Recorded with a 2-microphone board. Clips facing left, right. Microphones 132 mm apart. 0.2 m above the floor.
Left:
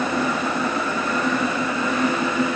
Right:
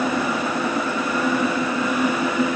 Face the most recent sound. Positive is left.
No sound to turn to.